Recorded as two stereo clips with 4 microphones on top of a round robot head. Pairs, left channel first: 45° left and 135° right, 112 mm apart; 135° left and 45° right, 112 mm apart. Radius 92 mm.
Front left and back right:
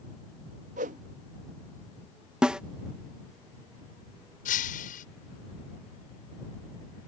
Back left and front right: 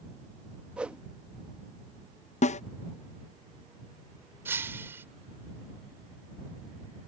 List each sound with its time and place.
0.8 s a whoosh: 125° right
2.4 s a snare drum: 140° left
4.5 s breaking glass: 30° left